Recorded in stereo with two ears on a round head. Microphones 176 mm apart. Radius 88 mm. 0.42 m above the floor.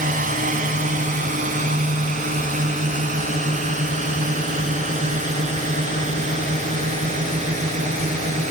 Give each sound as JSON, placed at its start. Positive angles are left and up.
{"t": 0.0, "sound": "a drone", "side_deg": -45}